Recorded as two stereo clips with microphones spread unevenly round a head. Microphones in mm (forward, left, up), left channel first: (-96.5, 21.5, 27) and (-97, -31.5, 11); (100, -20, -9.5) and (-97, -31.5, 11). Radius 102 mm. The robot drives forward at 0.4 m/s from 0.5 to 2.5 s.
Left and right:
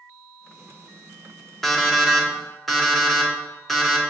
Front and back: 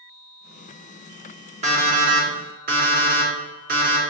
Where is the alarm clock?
150° left, 1.2 m; by 4.0 s 160° left, 1.4 m.